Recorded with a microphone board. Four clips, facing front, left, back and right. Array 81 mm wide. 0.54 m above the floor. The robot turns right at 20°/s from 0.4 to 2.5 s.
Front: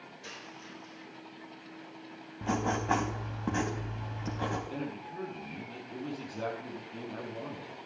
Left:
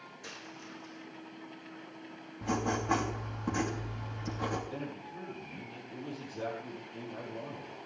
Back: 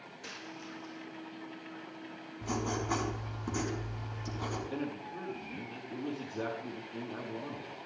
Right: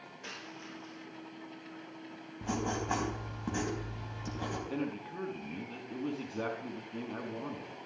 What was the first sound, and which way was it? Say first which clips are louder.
A dropped coin: right 2 dB, back 3 dB; 100° right.